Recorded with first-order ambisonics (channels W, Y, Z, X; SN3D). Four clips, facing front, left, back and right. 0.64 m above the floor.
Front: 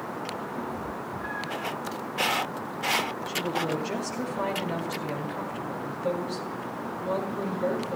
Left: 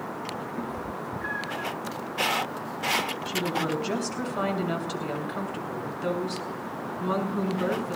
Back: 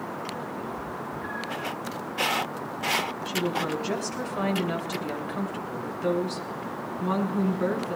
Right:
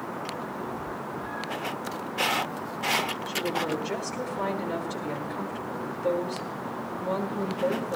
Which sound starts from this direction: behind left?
A woman speaking, at 3.2 s.